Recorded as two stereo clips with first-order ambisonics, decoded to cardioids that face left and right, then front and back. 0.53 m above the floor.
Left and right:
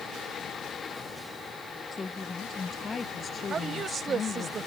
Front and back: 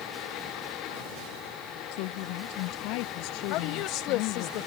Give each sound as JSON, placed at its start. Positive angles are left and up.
{"t": 1.9, "sound": "a woman speaking", "azimuth_deg": 10}
{"t": 3.5, "sound": "a woman speaking", "azimuth_deg": -25}